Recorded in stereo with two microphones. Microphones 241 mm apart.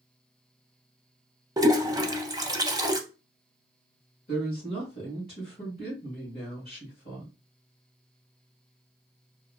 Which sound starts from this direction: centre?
A toilet flushing, at 1.6 s.